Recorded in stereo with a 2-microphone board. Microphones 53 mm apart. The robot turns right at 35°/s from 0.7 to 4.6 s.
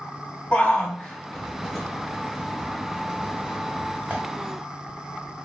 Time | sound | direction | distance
0.5 | a shout | 25° left (ahead or behind) | 1.1 m